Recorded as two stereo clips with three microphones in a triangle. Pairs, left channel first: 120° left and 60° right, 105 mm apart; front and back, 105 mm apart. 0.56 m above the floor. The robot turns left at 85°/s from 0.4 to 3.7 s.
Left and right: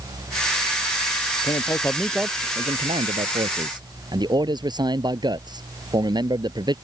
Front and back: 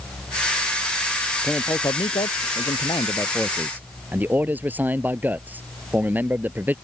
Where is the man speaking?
85° left; by 6.8 s 105° right.